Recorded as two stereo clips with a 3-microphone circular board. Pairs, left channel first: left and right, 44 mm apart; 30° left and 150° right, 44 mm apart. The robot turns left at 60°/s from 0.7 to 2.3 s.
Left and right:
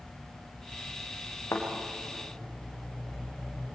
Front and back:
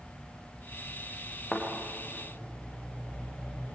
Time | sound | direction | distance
1.5 | a thud | 105° left | 4.5 m